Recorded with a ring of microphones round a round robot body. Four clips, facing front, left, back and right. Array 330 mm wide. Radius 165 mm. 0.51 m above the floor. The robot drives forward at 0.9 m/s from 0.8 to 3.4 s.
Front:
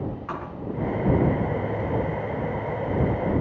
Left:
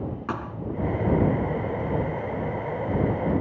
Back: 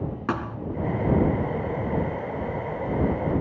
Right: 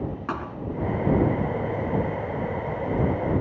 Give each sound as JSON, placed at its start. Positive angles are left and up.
{"t": 0.3, "sound": "a thud", "azimuth_deg": 180, "distance_m": 2.5}